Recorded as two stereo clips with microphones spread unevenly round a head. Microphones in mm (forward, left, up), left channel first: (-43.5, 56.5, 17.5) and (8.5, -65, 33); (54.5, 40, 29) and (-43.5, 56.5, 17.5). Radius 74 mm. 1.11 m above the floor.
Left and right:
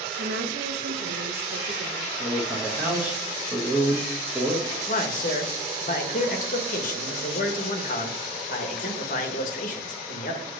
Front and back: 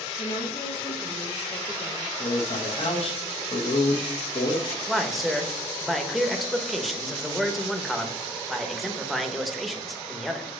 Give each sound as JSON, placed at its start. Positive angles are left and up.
{"t": 0.2, "sound": "a woman speaking", "azimuth_deg": -60, "distance_m": 0.9}
{"t": 2.2, "sound": "a man speaking", "azimuth_deg": 15, "distance_m": 1.1}
{"t": 4.9, "sound": "a man speaking", "azimuth_deg": 80, "distance_m": 1.0}